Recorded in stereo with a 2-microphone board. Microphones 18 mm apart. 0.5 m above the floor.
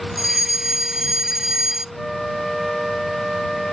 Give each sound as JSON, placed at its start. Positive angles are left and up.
{"t": 0.2, "sound": "a fire alarm", "side_deg": -25}
{"t": 1.9, "sound": "a flute", "side_deg": 5}